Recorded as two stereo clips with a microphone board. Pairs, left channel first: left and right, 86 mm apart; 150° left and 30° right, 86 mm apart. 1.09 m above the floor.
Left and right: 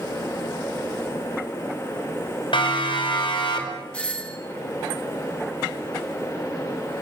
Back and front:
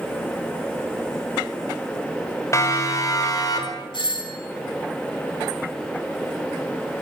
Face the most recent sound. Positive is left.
turn(degrees=165)